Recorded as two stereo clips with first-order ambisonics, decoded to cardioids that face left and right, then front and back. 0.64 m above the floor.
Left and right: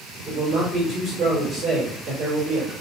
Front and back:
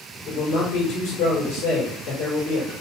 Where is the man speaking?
25° right, 2 m.